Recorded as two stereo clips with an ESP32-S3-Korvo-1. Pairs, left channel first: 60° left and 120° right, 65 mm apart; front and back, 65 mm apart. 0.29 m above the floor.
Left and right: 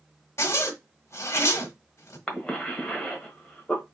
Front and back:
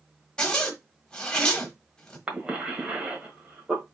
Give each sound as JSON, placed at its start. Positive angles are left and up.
{"t": 0.4, "sound": "a zipper", "azimuth_deg": 70, "distance_m": 1.0}
{"t": 2.3, "sound": "a cough", "azimuth_deg": 125, "distance_m": 1.3}